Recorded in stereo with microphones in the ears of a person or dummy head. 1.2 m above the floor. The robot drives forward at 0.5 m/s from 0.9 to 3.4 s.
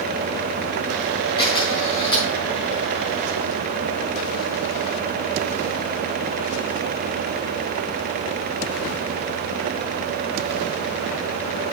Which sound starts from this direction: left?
A camera shutter, at 1.4 s.